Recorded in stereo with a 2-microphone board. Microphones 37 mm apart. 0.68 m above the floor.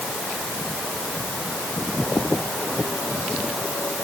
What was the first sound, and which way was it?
Only background noise.